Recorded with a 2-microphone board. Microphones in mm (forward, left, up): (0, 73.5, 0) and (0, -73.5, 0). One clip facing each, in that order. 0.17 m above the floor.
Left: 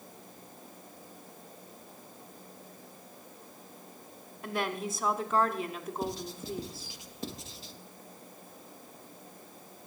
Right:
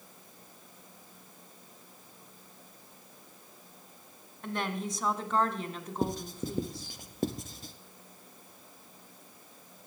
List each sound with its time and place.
4.4 s a woman speaking: 5° left (ahead or behind), 1.2 m
6.0 s writing: 50° right (ahead or behind), 0.8 m